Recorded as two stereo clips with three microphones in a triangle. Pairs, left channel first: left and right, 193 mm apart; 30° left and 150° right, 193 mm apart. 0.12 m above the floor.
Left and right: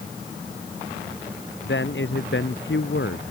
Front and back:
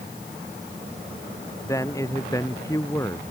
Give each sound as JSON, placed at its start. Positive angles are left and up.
{"t": 1.6, "sound": "a man speaking", "azimuth_deg": 105}